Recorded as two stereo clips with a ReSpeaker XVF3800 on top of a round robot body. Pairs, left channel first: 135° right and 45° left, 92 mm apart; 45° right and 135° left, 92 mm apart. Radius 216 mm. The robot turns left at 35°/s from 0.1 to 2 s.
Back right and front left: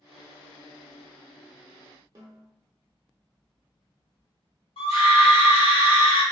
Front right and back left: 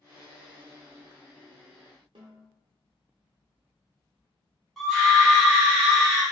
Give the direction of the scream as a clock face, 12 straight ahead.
4 o'clock.